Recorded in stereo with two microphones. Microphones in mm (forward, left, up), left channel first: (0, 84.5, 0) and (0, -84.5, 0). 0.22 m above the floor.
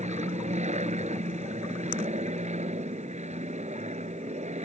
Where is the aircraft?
45° right (ahead or behind).